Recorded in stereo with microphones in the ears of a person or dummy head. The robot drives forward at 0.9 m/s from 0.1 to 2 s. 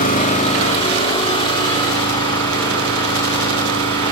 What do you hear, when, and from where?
0.0 s an engine running: 40° left (ahead or behind), 1.8 m; by 4.1 s 20° left (ahead or behind), 3.5 m